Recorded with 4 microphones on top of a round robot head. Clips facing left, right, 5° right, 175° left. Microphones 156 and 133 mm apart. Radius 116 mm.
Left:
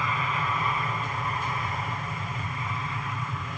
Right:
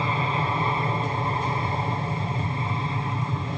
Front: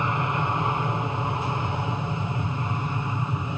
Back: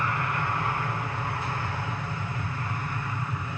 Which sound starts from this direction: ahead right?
An aircraft, at 0.0 s.